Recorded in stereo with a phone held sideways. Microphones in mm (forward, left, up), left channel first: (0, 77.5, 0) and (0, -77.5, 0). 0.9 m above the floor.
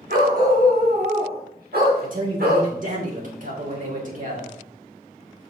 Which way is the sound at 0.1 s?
70° right (ahead or behind).